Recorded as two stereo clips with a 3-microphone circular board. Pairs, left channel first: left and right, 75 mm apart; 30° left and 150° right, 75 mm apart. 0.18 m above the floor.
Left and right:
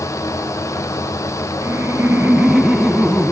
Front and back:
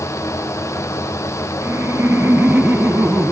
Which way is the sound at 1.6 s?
115° right.